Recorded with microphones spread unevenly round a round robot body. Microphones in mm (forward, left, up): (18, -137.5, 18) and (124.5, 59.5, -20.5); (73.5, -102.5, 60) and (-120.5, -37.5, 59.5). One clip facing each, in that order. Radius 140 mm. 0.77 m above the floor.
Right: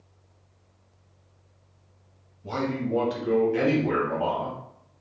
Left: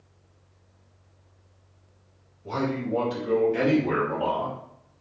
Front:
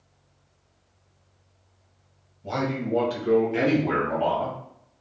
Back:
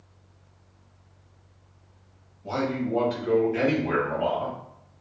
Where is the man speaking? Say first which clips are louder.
Even, even; 85° right, 1.2 m; by 4.6 s 5° right, 1.9 m.